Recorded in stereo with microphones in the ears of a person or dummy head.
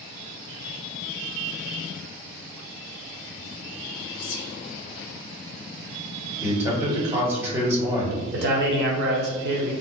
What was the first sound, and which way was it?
Whispering, 65° left (ahead or behind).